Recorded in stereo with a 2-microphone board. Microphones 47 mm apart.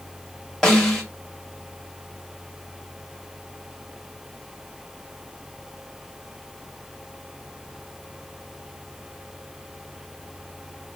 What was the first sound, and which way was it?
A snare drum, 10° left (ahead or behind).